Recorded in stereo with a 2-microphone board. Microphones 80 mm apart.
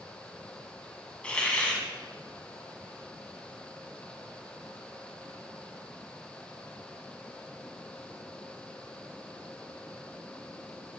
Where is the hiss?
15° left (ahead or behind), 1.1 m.